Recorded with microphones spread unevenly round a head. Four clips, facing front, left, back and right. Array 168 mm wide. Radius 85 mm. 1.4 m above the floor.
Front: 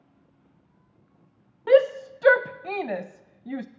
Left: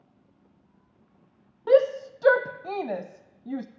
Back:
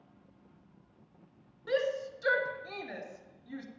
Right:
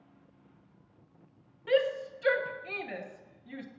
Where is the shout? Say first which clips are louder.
Left 8 dB, front 13 dB; 40° left, 0.6 m.